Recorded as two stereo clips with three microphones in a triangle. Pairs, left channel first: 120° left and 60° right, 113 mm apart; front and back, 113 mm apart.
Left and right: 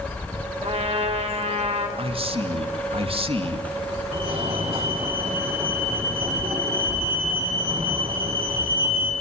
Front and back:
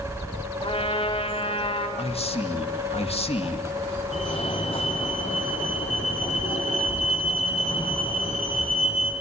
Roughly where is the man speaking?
Ahead right.